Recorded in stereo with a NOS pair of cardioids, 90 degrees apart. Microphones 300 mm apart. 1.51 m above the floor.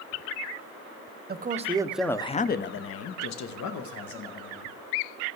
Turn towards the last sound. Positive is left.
turn(degrees=80)